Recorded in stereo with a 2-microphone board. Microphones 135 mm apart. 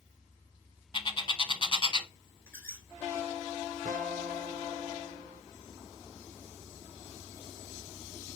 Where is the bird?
40° left (ahead or behind), 0.7 m.